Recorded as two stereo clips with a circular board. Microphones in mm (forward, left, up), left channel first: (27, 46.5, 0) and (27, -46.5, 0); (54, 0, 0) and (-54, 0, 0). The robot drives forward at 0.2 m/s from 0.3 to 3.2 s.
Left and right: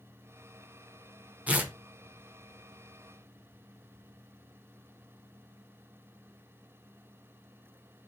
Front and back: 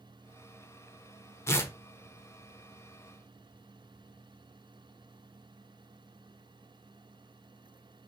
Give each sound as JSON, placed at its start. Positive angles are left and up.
{"t": 1.5, "sound": "tearing paper", "azimuth_deg": -30, "distance_m": 0.6}